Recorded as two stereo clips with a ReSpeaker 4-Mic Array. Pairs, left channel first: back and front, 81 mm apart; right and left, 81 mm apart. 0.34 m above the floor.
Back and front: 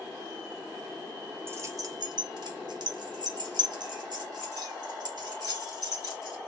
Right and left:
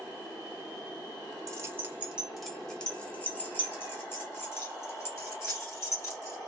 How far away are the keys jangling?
About 0.8 m.